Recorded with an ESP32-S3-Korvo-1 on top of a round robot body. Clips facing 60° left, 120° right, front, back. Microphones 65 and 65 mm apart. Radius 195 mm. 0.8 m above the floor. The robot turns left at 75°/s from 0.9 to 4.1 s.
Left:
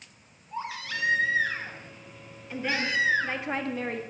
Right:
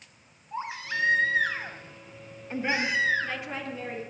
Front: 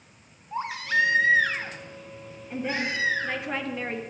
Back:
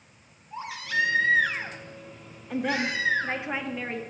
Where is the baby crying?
50° right, 2.0 m; by 3.4 s 120° left, 2.0 m.